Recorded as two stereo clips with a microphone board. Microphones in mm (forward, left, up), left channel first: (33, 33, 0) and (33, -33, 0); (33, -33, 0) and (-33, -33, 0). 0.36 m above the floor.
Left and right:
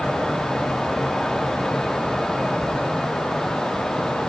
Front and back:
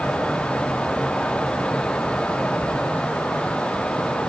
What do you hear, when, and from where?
Only background noise.